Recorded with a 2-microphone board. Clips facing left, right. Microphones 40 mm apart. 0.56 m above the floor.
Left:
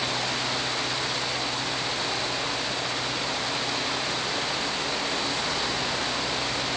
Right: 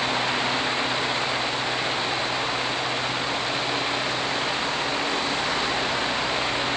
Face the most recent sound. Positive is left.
No sound to turn to.